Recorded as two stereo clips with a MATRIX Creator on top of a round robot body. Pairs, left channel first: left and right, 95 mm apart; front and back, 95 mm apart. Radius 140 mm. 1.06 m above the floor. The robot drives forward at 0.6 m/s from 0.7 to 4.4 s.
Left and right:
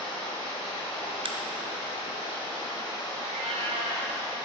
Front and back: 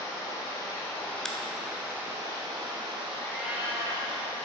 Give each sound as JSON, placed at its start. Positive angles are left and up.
{"t": 0.0, "sound": "running water", "azimuth_deg": 60, "distance_m": 1.1}
{"t": 1.2, "sound": "a crack", "azimuth_deg": -85, "distance_m": 0.7}
{"t": 3.2, "sound": "a cat meowing", "azimuth_deg": -80, "distance_m": 0.5}